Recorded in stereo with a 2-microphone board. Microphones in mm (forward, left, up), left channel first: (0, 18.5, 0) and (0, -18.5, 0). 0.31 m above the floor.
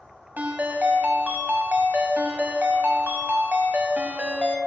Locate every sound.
0.4 s a ringtone: 50° right (ahead or behind), 0.9 m